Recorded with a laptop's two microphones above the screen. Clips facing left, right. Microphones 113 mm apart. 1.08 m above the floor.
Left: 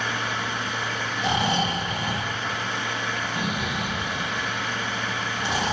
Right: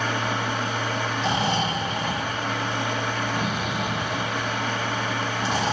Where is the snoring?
10° left (ahead or behind), 3.5 m.